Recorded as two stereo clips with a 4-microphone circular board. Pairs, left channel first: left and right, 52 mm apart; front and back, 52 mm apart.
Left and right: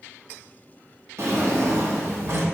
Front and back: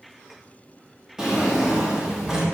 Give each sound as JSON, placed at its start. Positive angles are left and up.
{"t": 1.2, "sound": "a drawer", "azimuth_deg": -100, "distance_m": 0.9}